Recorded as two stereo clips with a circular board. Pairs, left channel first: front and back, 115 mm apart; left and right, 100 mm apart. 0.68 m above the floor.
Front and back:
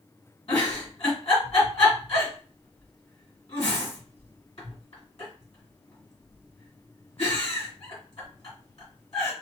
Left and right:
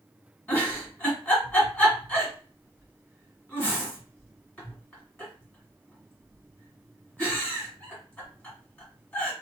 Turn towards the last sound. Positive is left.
turn(degrees=15)